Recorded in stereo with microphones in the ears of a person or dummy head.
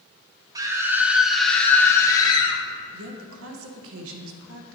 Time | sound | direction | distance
0.6 | a scream | 20° right (ahead or behind) | 1.3 m
2.9 | a woman speaking | 80° right | 1.0 m